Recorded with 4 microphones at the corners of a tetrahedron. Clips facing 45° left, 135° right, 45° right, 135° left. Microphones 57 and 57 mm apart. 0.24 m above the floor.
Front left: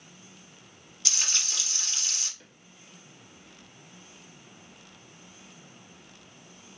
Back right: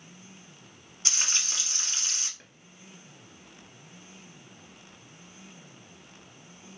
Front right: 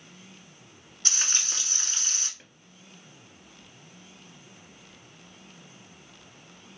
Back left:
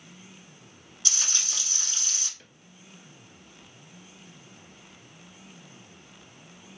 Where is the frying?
85° right, 1.1 m.